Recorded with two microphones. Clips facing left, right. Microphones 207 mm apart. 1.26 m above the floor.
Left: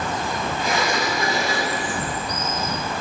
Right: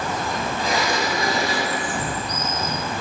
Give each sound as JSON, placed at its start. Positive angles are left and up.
{"t": 0.6, "sound": "a sliding door", "side_deg": -35, "distance_m": 2.0}
{"t": 1.9, "sound": "footsteps", "side_deg": -25, "distance_m": 1.5}